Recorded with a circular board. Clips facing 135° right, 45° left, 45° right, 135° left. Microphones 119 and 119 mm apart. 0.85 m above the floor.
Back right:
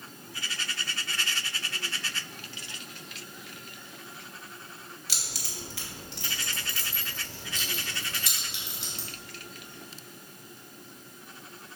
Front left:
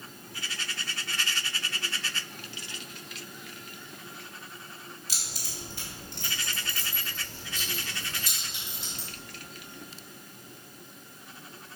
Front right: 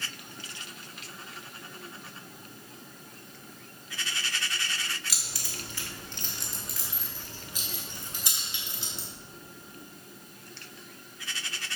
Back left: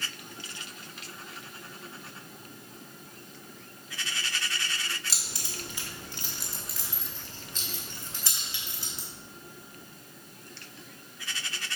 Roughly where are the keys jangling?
Behind.